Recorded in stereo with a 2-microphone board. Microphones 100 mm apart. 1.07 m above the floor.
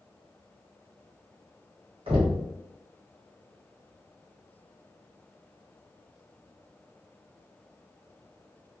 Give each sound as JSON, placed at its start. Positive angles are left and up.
{"t": 2.1, "sound": "knocking", "side_deg": -65, "distance_m": 1.6}